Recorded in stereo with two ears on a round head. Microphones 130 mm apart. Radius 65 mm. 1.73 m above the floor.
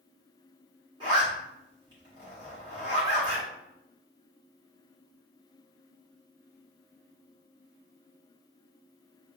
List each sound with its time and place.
1.0 s a zipper: 30° right (ahead or behind), 1.9 m